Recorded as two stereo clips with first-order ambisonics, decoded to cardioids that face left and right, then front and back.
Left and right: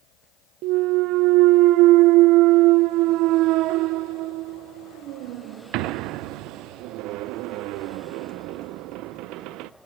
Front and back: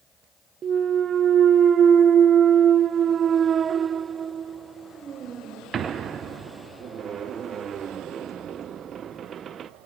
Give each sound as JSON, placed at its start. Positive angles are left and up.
{"t": 0.6, "sound": "a clunk", "azimuth_deg": -120, "distance_m": 0.6}